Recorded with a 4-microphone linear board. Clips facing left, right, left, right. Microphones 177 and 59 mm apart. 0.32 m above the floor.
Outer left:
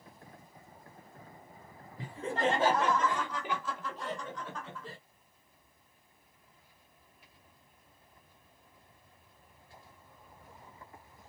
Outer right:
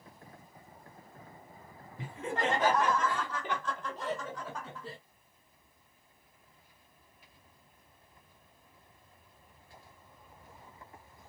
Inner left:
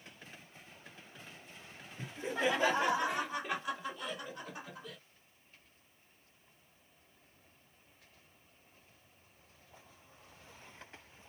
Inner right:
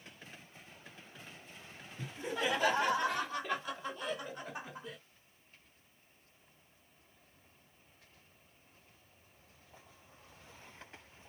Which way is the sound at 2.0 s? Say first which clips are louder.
Outer left 2 dB, inner left 2 dB; 40° left (ahead or behind).